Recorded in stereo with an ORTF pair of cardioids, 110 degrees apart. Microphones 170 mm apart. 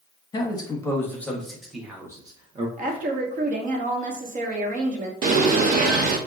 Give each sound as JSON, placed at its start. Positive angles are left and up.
{"t": 0.3, "sound": "a man speaking", "azimuth_deg": 25, "distance_m": 1.4}
{"t": 2.8, "sound": "a woman speaking", "azimuth_deg": -50, "distance_m": 1.2}
{"t": 5.2, "sound": "a bird", "azimuth_deg": -55, "distance_m": 0.9}